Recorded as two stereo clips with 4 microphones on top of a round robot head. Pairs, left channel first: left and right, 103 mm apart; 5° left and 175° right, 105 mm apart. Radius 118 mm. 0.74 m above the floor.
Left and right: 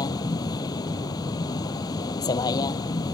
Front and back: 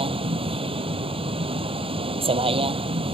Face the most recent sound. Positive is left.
turn(degrees=150)